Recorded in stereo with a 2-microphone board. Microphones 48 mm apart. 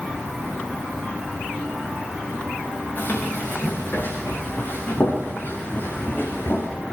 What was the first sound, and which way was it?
Running footsteps, 40° left (ahead or behind).